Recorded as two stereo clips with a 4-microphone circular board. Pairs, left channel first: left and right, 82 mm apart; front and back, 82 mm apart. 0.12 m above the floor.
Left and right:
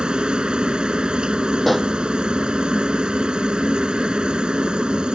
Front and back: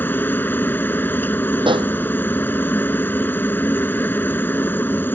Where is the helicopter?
25° right.